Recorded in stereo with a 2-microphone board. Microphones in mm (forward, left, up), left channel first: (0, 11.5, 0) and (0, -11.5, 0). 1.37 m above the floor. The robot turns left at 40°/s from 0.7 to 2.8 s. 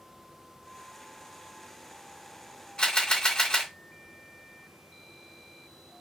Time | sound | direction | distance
2.8 | a camera shutter | 45° left (ahead or behind) | 1.4 m